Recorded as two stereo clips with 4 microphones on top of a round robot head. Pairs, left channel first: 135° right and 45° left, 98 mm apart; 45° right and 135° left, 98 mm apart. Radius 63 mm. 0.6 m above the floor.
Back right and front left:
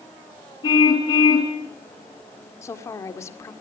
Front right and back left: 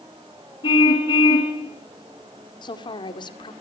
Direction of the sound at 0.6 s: 90° right.